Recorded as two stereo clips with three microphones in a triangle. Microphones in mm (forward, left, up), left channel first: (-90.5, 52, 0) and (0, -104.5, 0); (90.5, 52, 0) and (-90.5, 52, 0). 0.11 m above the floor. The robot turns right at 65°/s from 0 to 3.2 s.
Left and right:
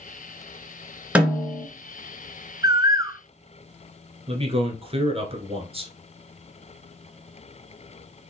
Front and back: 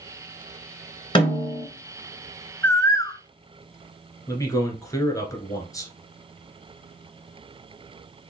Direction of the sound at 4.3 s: 55° right.